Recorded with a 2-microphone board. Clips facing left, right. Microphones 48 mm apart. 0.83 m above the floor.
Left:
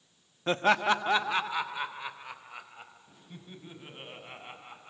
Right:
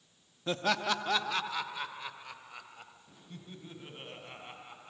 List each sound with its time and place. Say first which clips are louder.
0.5 s laughter: left 6 dB; 40° left (ahead or behind), 0.9 m; by 4.9 s 15° left (ahead or behind), 6.5 m